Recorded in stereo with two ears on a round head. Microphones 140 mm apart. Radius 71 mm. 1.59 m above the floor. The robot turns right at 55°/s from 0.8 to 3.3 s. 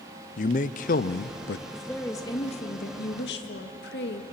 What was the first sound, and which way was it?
A man speaking, 50° left.